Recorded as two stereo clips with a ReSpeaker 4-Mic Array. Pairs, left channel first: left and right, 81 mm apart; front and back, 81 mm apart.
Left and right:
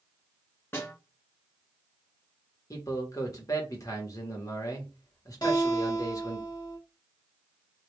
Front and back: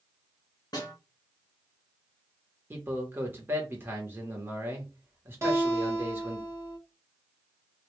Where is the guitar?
125° left, 1.2 m.